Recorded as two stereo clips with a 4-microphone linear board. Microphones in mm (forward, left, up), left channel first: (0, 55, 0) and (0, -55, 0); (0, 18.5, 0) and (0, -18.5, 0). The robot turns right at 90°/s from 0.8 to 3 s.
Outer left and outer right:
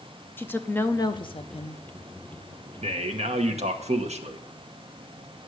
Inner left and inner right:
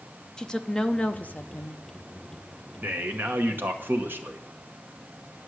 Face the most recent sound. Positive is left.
turn(degrees=-85)